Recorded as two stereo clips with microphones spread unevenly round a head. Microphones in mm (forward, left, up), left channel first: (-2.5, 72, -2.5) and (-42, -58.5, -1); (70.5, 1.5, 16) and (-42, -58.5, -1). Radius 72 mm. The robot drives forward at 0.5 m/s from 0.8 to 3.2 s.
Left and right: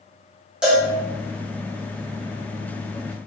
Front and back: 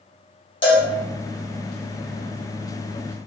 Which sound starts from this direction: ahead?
A cowbell, at 0.6 s.